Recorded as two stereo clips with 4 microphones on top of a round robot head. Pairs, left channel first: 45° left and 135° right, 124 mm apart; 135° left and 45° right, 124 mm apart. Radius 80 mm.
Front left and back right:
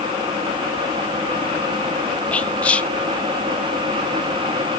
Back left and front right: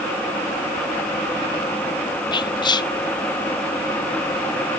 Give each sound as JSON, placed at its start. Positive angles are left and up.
{"t": 2.3, "sound": "whispering", "azimuth_deg": 120, "distance_m": 0.6}